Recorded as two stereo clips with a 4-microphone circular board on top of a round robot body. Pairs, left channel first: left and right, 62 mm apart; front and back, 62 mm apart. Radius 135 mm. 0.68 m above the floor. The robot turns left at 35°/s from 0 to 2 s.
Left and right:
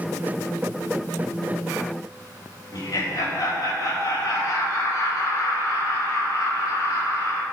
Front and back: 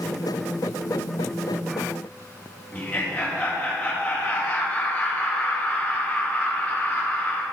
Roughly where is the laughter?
Left.